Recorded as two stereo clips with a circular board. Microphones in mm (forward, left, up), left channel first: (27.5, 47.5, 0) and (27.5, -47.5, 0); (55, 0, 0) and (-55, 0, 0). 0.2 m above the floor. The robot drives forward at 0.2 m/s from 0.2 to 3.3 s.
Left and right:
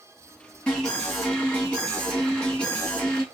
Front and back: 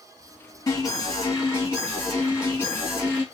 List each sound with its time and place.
0.7 s an alarm: 25° left, 2 m; by 3.2 s 40° left, 1.8 m